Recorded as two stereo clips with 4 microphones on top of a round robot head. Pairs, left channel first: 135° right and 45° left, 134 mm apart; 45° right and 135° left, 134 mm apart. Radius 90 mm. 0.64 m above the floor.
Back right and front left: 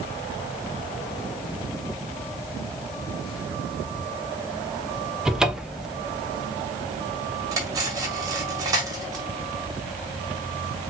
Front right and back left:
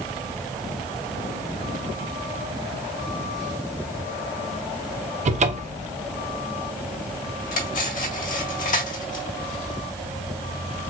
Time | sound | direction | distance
5.2 | a cupboard door | 130° left | 0.8 m
7.5 | cutlery clinking | 20° right | 1.9 m